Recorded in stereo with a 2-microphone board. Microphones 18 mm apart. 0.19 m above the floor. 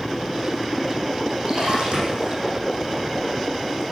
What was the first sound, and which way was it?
A splash, 50° right (ahead or behind).